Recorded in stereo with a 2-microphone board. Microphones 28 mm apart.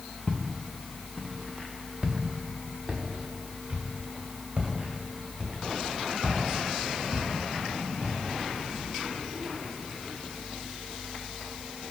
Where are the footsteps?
20° left (ahead or behind), 1.1 m; by 8.1 s 45° right (ahead or behind), 5 m.